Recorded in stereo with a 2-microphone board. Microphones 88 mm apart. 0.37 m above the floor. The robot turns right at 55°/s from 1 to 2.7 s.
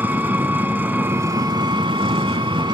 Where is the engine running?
160° right, 0.7 m; by 2.8 s 65° right, 0.7 m.